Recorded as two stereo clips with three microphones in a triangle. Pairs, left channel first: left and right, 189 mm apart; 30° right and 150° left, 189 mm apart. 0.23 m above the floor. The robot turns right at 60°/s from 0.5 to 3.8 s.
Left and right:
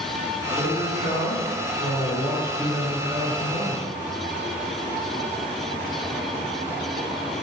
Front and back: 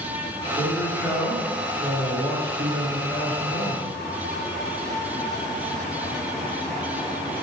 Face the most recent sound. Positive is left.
turn(degrees=-120)